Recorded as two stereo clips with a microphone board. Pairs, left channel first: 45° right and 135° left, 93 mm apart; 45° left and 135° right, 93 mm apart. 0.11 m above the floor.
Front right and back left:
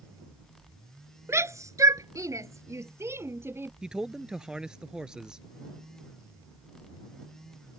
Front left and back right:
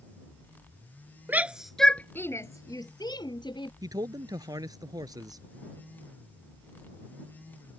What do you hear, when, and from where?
1.3 s a shout: 170° left; by 3.7 s 70° left
3.8 s a man speaking: 145° right